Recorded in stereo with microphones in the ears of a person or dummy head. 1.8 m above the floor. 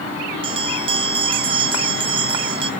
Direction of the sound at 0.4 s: 40° right (ahead or behind).